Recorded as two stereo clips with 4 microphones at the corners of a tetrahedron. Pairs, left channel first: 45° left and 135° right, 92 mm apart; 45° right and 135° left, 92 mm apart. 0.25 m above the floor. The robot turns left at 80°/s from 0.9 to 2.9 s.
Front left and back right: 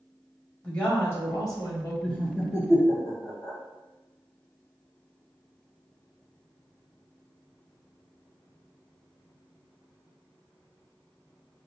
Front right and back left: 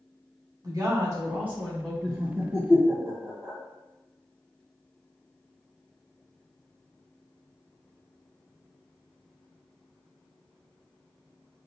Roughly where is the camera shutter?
I don't hear a camera shutter.